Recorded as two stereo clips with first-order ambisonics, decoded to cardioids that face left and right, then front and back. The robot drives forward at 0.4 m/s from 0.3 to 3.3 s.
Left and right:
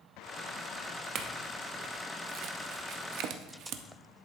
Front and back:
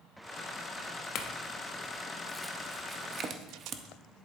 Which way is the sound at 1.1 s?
40° right.